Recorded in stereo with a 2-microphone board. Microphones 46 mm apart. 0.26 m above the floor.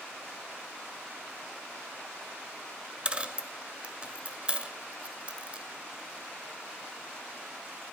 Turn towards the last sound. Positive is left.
turn(degrees=-25)  # may be behind; listen again after turning